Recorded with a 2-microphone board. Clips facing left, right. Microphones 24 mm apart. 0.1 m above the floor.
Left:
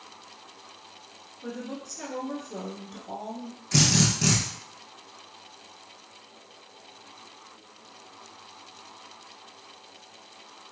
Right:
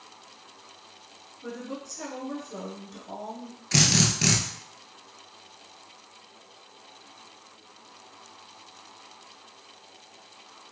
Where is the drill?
30° right (ahead or behind), 0.8 m.